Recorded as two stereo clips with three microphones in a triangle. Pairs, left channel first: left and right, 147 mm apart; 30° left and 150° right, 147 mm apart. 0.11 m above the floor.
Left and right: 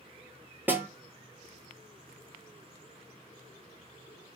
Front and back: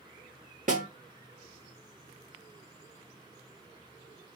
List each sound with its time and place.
0.7 s a snare drum: 165° right, 0.6 m